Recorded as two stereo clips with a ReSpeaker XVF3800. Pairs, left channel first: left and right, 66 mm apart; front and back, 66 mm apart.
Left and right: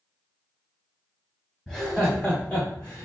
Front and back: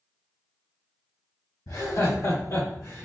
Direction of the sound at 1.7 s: 5° left.